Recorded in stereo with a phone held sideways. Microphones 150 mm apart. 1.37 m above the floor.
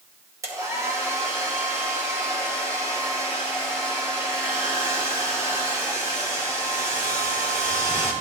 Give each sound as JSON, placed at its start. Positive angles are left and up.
{"t": 0.4, "sound": "a hair dryer", "side_deg": -20, "distance_m": 2.0}